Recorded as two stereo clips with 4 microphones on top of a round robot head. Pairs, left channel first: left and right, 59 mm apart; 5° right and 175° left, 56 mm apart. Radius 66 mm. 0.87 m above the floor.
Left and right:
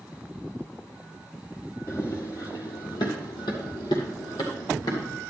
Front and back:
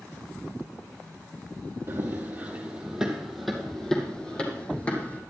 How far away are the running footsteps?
About 2 m.